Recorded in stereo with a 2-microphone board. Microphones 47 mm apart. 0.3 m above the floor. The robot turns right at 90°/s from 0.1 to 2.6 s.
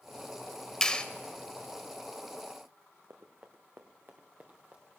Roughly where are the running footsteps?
Right.